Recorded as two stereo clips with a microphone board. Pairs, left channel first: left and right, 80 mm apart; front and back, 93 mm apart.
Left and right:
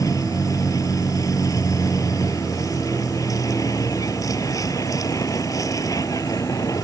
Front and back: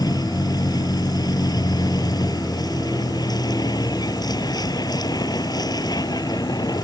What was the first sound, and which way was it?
A vehicle, 45° left.